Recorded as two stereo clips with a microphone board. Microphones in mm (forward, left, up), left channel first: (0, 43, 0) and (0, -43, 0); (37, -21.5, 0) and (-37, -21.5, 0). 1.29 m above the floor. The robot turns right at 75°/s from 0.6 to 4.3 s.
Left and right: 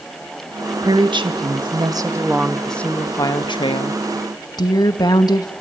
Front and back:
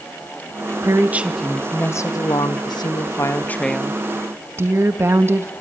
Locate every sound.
0.8 s a woman speaking: 135° right, 2 m; by 5.5 s 125° left, 2 m